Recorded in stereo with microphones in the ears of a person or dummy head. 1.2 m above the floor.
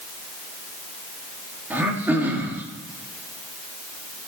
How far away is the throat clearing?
About 2 m.